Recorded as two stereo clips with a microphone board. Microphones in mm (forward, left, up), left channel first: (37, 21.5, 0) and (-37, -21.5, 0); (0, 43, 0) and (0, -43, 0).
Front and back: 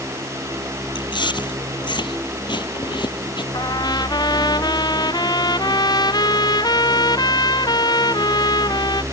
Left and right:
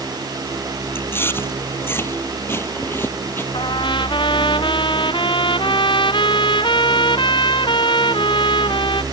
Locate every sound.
0.9 s chewing: 30° left
3.5 s a trumpet: 70° left